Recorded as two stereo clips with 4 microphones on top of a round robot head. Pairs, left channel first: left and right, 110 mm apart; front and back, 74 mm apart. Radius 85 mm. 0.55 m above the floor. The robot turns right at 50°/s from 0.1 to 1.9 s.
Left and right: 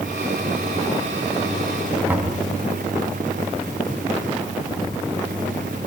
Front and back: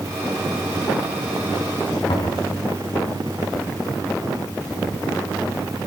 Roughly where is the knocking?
Ahead.